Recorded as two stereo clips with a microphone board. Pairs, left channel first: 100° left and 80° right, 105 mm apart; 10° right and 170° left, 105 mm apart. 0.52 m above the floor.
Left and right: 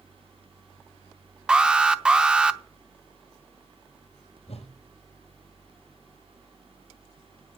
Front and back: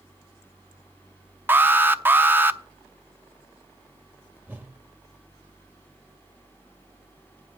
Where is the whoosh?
95° left, 2.5 m.